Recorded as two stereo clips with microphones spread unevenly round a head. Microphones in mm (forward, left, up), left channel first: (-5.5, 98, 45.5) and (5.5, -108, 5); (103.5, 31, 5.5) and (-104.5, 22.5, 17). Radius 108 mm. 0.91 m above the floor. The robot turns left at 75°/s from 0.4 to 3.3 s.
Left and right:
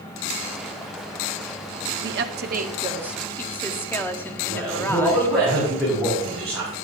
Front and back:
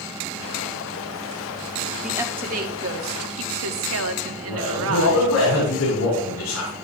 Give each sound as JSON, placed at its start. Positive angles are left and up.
{"t": 2.0, "sound": "a woman speaking", "azimuth_deg": -85, "distance_m": 1.2}
{"t": 4.5, "sound": "a man speaking", "azimuth_deg": -5, "distance_m": 5.5}